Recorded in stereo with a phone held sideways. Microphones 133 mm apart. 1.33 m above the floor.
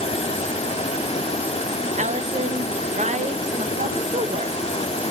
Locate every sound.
0.0 s running water: 50° left (ahead or behind), 1.2 m
2.0 s a woman speaking: 65° right (ahead or behind), 1.1 m